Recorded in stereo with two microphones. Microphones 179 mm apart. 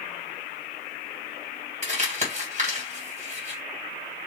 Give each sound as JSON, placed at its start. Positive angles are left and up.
{"t": 1.8, "sound": "crumpling", "side_deg": -40, "distance_m": 1.9}